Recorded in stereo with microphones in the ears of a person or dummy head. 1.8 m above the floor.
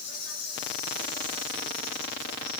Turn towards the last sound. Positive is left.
turn(degrees=50)  # may be behind; listen again after turning